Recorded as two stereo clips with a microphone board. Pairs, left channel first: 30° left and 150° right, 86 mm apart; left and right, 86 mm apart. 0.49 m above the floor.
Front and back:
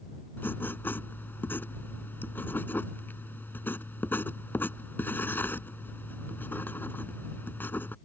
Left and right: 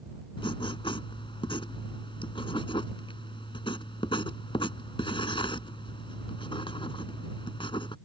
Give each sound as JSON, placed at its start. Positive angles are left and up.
{"t": 0.4, "sound": "writing", "azimuth_deg": 95}